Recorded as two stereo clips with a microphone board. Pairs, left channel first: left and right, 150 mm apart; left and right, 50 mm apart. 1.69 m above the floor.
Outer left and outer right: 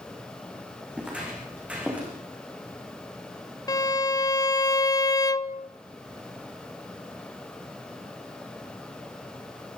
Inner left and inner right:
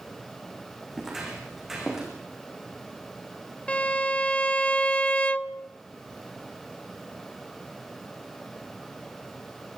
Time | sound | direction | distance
0.9 | footsteps | 10° right (ahead or behind) | 7 m
3.7 | a violin | 25° left (ahead or behind) | 0.6 m